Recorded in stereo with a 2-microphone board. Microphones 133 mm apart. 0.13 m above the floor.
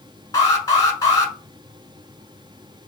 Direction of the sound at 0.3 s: 25° left (ahead or behind).